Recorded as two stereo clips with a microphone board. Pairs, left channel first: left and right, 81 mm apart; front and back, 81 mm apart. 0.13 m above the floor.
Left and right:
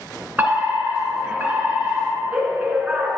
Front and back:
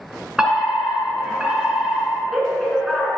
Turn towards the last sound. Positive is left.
turn(degrees=-110)